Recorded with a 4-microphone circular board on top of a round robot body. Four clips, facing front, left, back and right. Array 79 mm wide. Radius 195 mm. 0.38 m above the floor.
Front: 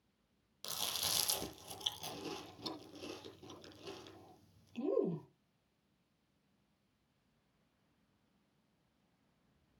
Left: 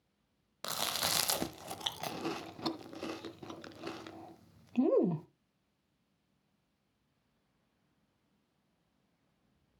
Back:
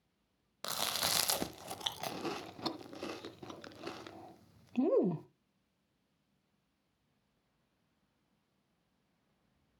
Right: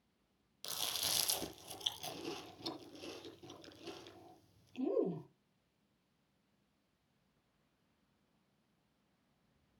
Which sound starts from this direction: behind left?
Chewing, at 0.6 s.